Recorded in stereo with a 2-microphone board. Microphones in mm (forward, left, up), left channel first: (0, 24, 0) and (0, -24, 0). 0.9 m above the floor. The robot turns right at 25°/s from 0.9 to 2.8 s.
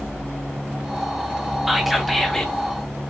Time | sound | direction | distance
1.7 | whispering | 5° right (ahead or behind) | 0.9 m